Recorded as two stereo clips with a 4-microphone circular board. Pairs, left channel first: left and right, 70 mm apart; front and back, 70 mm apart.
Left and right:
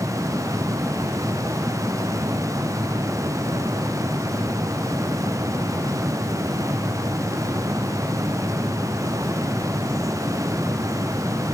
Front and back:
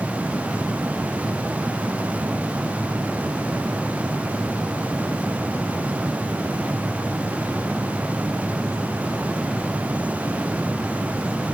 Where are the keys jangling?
I don't hear keys jangling.